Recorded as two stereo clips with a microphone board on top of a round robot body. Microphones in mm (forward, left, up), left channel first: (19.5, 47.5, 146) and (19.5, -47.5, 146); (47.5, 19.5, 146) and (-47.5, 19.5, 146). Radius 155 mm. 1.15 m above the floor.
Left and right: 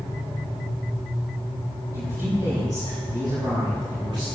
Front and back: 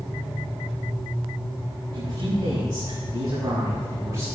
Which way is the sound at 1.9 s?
140° right.